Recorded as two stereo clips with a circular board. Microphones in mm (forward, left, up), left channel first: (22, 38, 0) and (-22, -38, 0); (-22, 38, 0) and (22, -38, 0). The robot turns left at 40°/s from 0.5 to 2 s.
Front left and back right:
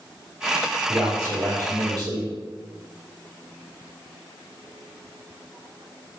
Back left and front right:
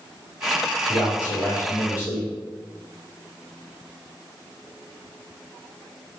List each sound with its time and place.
0.9 s a man speaking: 80° right, 1.9 m; by 2.3 s 125° right, 1.9 m